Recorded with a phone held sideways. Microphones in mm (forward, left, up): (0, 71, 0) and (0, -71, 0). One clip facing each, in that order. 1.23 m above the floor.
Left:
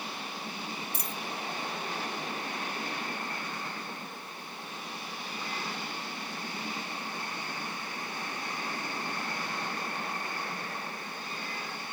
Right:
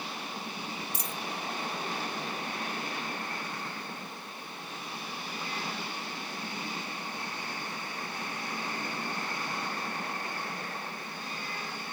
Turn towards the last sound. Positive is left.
turn(degrees=60)  # may be behind; listen again after turning